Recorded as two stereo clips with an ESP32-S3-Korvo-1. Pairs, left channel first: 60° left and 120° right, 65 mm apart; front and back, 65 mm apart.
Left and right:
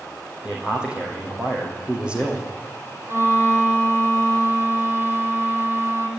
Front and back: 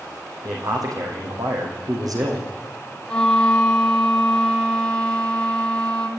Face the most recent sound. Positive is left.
turn(degrees=-75)